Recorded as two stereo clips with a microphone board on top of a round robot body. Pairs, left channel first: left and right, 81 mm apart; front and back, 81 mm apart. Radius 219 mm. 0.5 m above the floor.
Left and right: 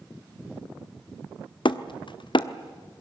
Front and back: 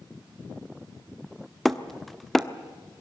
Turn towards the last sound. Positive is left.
turn(degrees=90)